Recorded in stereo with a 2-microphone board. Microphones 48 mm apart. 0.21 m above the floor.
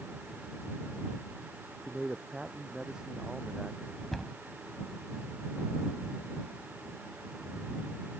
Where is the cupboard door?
5° left (ahead or behind).